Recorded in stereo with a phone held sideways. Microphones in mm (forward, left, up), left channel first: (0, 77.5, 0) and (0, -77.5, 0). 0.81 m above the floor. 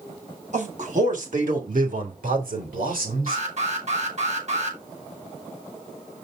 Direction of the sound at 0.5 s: 55° right (ahead or behind).